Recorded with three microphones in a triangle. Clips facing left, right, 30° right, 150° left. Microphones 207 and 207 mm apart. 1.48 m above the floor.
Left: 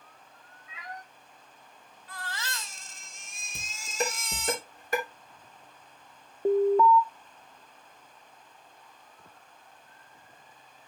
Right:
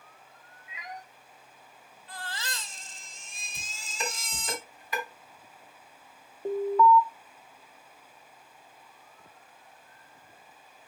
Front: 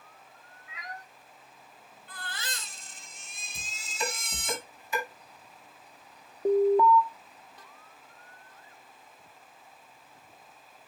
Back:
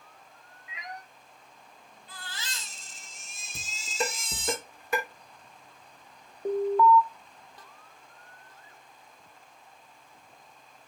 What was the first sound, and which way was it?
A cat meowing, 150° right.